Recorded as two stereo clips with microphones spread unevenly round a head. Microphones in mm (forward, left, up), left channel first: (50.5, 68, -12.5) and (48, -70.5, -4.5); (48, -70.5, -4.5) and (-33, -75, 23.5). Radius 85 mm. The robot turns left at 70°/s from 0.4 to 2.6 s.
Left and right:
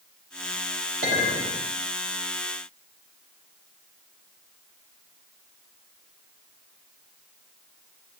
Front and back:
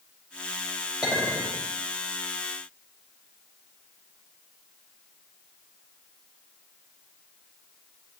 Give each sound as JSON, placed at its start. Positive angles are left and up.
{"t": 1.0, "sound": "a clink", "azimuth_deg": -100, "distance_m": 4.5}